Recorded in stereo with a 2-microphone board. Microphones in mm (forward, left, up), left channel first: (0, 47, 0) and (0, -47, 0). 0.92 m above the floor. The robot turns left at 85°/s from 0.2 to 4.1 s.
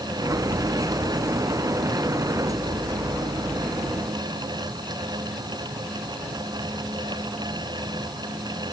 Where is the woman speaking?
I don't hear a woman speaking.